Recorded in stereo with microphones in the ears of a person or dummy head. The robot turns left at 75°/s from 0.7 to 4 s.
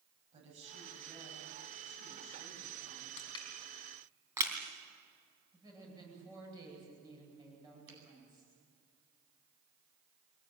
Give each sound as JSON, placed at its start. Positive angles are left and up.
{"t": 0.3, "sound": "a woman speaking", "azimuth_deg": -150, "distance_m": 8.0}
{"t": 3.2, "sound": "crushing", "side_deg": 35, "distance_m": 3.5}
{"t": 5.5, "sound": "a woman speaking", "side_deg": -25, "distance_m": 9.5}
{"t": 7.9, "sound": "a finger snap", "side_deg": -80, "distance_m": 9.0}